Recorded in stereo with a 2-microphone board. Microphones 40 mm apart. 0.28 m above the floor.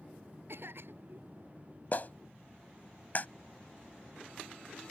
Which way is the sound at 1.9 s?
45° left (ahead or behind).